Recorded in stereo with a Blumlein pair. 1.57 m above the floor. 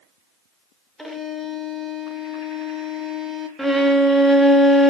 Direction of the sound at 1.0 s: Straight ahead.